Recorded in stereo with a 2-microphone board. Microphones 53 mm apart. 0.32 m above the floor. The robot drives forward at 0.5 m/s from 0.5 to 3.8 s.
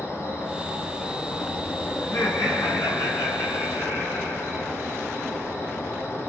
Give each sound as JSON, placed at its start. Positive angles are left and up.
{"t": 0.0, "sound": "an insect", "side_deg": 60, "distance_m": 5.0}
{"t": 2.0, "sound": "laughter", "side_deg": 70, "distance_m": 4.5}